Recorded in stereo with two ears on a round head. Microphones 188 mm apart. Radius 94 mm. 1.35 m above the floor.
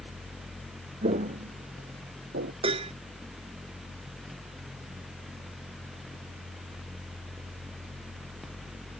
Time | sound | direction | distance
1.0 | footsteps | 30° right (ahead or behind) | ?
2.6 | dishes clattering | 30° right (ahead or behind) | ?